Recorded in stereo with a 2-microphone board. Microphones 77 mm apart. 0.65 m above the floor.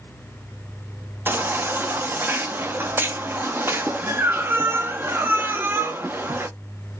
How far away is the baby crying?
About 0.5 m.